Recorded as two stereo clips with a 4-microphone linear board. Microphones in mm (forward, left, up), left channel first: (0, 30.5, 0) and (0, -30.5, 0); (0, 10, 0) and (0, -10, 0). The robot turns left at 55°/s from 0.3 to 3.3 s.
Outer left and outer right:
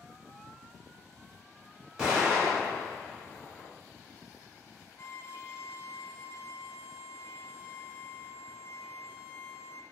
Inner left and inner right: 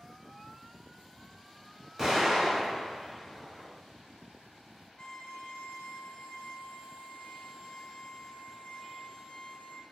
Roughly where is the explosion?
Centre.